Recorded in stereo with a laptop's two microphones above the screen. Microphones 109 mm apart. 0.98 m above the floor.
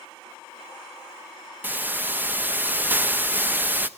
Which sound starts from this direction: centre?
A hiss, at 1.6 s.